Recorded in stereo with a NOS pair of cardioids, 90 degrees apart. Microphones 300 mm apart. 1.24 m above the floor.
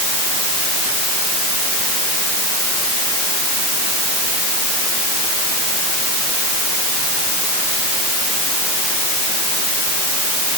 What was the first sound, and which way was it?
Only background noise.